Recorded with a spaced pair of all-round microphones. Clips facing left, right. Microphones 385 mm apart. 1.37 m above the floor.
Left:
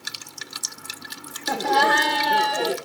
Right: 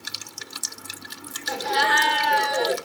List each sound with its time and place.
1.5 s laughter: 65° left (ahead or behind), 1.3 m; by 2.8 s 40° left (ahead or behind), 1.5 m